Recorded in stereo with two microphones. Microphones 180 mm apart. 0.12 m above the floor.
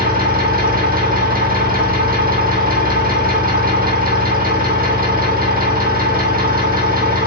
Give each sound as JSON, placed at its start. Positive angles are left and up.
{"t": 0.0, "sound": "an engine running", "side_deg": -55, "distance_m": 2.0}